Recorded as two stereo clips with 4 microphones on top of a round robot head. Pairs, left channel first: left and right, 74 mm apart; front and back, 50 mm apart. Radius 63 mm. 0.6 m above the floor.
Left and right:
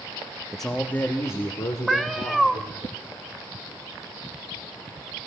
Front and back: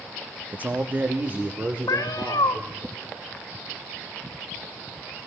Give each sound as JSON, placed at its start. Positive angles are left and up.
{"t": 0.5, "sound": "a man speaking", "azimuth_deg": -175, "distance_m": 0.8}
{"t": 1.9, "sound": "a cat meowing", "azimuth_deg": 0, "distance_m": 0.7}